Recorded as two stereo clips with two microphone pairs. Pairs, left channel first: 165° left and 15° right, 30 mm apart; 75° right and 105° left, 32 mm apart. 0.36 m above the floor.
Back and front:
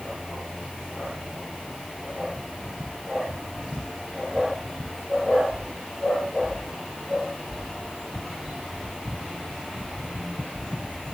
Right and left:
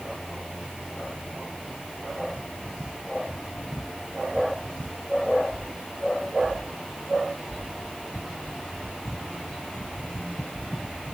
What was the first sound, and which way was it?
Only background noise.